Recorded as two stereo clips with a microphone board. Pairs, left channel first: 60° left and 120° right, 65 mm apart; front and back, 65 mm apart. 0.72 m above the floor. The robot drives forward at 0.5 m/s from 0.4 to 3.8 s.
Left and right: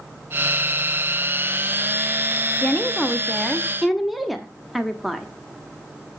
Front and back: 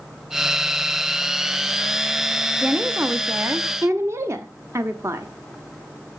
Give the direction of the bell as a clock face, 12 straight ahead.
I don't hear a bell.